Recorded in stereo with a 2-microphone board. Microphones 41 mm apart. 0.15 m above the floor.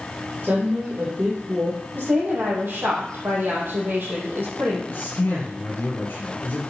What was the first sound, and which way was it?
A woman speaking, 35° right (ahead or behind).